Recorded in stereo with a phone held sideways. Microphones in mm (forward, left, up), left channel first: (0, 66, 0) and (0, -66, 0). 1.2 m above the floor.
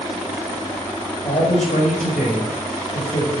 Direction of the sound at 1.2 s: 75° left (ahead or behind).